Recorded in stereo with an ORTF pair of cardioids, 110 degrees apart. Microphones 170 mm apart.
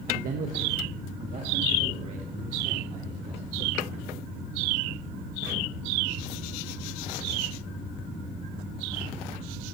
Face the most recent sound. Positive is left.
turn(degrees=-35)